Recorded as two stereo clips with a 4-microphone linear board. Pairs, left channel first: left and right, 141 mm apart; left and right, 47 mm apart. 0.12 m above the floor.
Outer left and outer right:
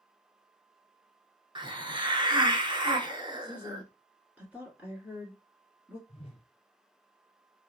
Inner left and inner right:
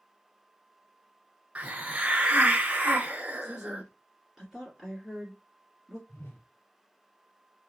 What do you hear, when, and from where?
1.6 s a hiss: 35° right (ahead or behind), 0.6 m
3.4 s a woman speaking: 10° right (ahead or behind), 1.6 m
6.1 s a whoosh: 45° left (ahead or behind), 1.2 m